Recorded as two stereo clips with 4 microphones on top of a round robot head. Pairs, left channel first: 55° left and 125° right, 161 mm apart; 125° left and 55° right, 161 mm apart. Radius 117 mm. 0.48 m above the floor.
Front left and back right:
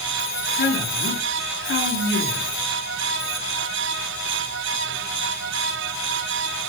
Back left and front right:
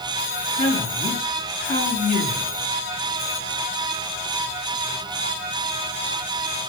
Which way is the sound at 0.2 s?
85° left.